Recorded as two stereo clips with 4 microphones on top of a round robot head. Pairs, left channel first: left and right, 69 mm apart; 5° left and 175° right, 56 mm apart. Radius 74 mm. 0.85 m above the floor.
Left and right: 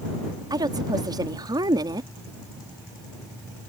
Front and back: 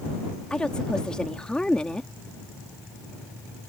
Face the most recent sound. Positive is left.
turn(degrees=-70)